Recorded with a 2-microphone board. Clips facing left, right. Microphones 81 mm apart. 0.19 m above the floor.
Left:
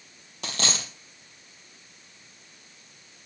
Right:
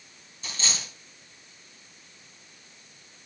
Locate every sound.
0.4 s a dropped coin: 70° left (ahead or behind), 2 m